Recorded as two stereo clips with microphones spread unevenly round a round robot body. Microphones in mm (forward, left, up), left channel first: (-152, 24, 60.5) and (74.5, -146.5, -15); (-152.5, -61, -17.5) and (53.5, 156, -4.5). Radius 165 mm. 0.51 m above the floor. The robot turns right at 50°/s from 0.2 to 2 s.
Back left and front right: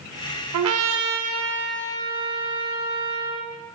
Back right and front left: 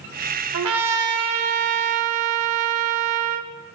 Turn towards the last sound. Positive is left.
turn(degrees=65)